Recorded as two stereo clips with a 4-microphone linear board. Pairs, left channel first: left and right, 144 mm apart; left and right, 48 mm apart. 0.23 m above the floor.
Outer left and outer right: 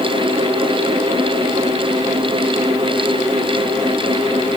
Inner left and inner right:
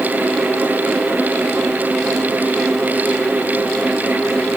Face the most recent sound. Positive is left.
No sound to turn to.